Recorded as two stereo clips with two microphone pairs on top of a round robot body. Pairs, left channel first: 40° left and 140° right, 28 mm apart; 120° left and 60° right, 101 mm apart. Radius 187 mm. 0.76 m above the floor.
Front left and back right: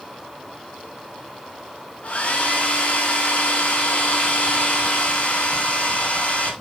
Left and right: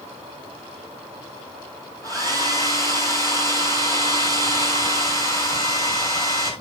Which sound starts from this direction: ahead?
A hair dryer, at 2.0 s.